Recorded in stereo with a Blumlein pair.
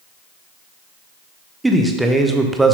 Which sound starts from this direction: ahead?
A man speaking, at 1.6 s.